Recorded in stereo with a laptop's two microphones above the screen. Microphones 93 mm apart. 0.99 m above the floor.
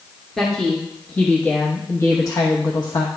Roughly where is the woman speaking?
Centre.